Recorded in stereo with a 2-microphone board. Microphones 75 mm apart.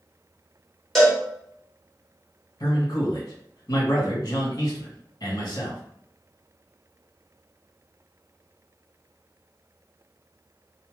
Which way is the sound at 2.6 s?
55° left (ahead or behind).